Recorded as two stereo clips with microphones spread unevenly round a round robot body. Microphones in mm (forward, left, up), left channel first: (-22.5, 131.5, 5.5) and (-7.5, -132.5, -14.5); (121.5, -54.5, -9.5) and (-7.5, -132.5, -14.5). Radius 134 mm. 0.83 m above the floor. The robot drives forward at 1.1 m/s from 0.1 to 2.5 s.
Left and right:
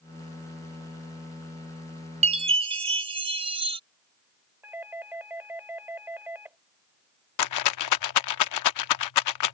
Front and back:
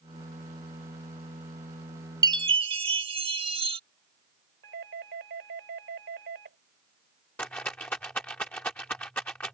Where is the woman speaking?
I don't hear a woman speaking.